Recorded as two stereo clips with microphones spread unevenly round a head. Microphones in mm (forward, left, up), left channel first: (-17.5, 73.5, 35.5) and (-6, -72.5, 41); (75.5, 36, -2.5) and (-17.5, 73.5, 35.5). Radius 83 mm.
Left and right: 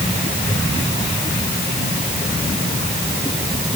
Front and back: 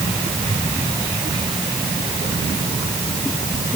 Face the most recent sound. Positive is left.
No sound to turn to.